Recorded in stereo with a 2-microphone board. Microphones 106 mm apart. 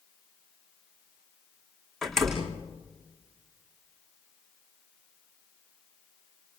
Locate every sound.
2.0 s a door slam: 5° left (ahead or behind), 5.5 m